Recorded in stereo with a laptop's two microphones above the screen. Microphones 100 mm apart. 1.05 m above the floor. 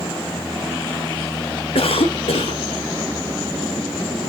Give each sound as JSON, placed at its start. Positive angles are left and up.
{"t": 1.8, "sound": "a cough", "side_deg": 70, "distance_m": 1.4}